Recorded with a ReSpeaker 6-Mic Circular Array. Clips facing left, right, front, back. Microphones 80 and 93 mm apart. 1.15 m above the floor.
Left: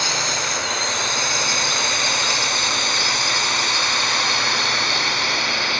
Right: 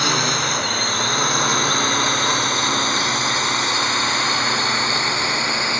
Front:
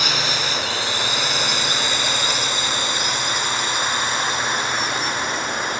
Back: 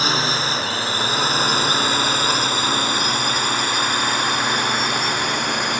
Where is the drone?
125° right; by 5.8 s 160° right.